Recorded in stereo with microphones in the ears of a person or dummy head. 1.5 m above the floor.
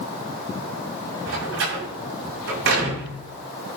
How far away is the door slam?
About 6.5 m.